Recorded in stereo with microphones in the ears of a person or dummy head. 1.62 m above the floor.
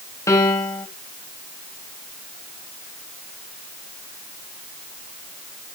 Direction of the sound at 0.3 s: 15° left (ahead or behind).